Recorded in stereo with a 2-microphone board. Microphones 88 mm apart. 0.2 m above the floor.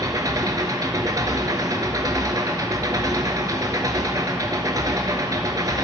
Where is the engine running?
45° right (ahead or behind), 1.3 m.